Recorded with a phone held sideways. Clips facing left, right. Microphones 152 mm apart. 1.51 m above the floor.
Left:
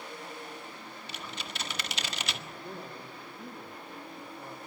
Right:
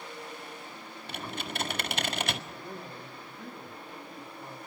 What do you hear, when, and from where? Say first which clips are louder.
1.1 s typing on a keyboard: right 7 dB; 55° right (ahead or behind), 1.7 m
2.5 s a man speaking: even; 5° left (ahead or behind), 2.5 m